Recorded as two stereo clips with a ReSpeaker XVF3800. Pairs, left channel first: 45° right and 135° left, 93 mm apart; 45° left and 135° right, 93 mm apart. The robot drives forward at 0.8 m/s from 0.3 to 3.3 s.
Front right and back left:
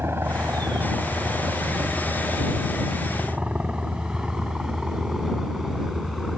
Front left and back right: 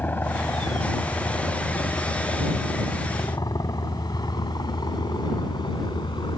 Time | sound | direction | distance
0.0 | a helicopter | 95° left | ?